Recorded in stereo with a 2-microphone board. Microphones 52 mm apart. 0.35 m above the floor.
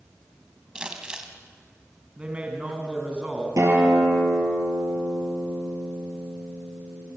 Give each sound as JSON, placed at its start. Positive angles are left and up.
{"t": 0.8, "sound": "crumpling", "side_deg": -15, "distance_m": 2.5}
{"t": 2.2, "sound": "a man speaking", "side_deg": -20, "distance_m": 3.5}
{"t": 3.6, "sound": "a guitar", "side_deg": -75, "distance_m": 6.0}